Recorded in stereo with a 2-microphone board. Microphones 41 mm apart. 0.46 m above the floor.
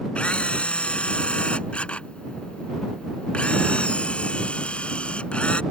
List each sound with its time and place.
0.1 s a camera shutter: 30° left (ahead or behind)